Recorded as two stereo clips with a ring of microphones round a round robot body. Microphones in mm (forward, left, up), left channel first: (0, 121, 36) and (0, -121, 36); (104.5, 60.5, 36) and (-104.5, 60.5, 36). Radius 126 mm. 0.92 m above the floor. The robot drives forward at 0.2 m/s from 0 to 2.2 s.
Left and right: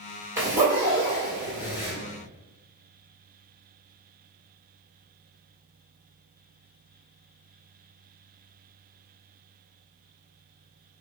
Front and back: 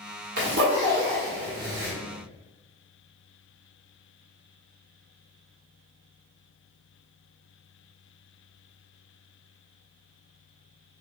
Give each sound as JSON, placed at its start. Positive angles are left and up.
{"t": 0.4, "sound": "a zipper", "azimuth_deg": -165, "distance_m": 1.4}